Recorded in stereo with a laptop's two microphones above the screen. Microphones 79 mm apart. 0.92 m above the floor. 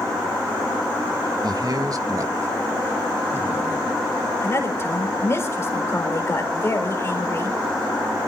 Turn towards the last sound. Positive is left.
turn(degrees=35)  # may be behind; listen again after turning